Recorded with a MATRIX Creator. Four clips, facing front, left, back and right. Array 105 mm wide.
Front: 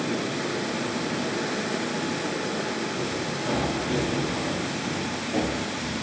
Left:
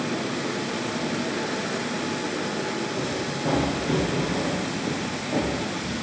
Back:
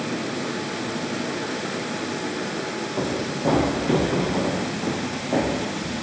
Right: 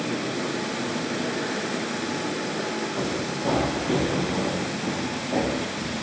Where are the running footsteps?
170° right, 2.5 m; by 6.0 s straight behind, 5.5 m.